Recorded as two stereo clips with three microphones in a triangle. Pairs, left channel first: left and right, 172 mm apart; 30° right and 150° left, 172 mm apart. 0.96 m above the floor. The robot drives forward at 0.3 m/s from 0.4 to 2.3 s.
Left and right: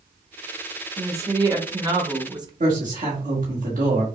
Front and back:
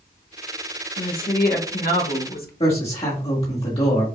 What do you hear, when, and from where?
1.0 s a woman speaking: 20° right, 1.4 m; by 2.5 s 25° right, 1.0 m
2.6 s a man speaking: 75° right, 1.4 m